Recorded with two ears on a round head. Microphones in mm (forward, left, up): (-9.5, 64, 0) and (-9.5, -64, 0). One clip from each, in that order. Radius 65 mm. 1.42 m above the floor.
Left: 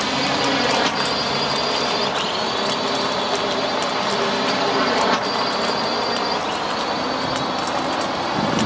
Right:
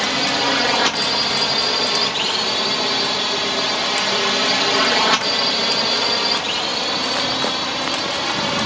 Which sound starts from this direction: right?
A drone, at 0.0 s.